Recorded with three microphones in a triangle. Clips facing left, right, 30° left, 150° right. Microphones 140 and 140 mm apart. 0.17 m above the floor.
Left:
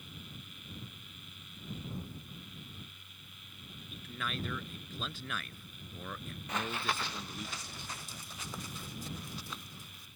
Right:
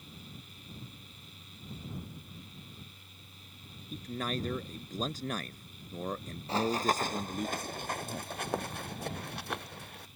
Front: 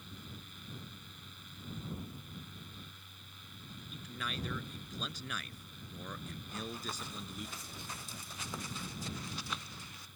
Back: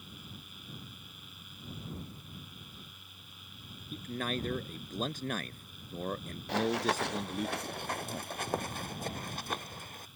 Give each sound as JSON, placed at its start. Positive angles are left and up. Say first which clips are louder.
{"t": 3.9, "sound": "a man speaking", "louder": "right 6 dB, back 8 dB", "azimuth_deg": -130}
{"t": 6.5, "sound": "running footsteps", "louder": "right 7 dB, back 14 dB", "azimuth_deg": -150}